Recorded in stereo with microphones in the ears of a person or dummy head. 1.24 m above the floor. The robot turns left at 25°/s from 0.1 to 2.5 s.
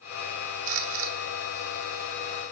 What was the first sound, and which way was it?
A camera shutter, 65° right (ahead or behind).